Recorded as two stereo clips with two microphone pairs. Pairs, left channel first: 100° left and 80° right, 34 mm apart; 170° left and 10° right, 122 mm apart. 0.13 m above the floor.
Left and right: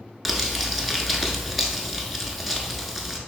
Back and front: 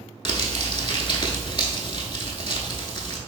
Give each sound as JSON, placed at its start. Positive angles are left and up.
{"t": 0.2, "sound": "crumpling", "azimuth_deg": -160, "distance_m": 0.6}